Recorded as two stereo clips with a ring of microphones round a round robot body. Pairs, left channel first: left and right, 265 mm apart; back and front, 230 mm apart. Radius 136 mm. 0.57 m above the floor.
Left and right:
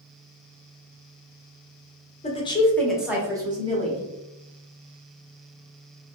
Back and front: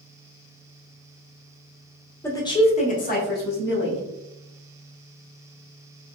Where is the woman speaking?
110° left, 0.7 m; by 4.0 s 150° right, 1.2 m.